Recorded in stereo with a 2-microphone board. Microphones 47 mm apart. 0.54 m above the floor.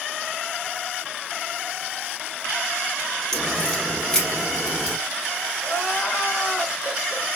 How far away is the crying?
About 3.5 m.